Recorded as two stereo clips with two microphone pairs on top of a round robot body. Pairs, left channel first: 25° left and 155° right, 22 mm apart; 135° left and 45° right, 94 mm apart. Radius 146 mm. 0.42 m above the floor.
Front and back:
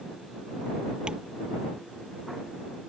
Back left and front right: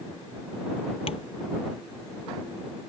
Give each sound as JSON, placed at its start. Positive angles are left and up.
{"t": 1.1, "sound": "tapping", "azimuth_deg": 150}